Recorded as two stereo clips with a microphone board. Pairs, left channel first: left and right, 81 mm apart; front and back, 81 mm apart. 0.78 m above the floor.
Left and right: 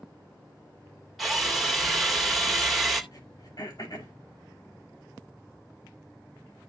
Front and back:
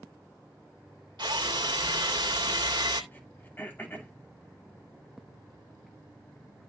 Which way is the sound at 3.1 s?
60° left.